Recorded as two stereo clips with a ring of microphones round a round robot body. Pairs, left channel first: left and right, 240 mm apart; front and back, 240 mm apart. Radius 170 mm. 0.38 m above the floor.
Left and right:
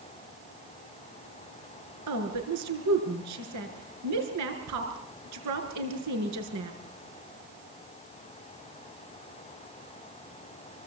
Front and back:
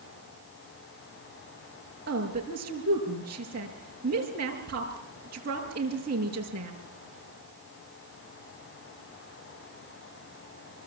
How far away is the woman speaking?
About 5.5 m.